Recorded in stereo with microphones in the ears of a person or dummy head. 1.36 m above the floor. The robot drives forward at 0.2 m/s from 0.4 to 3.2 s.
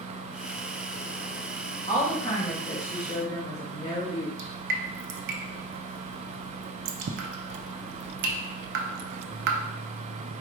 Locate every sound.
1.9 s a woman speaking: 20° left (ahead or behind), 2 m
4.4 s dripping: 55° right (ahead or behind), 0.5 m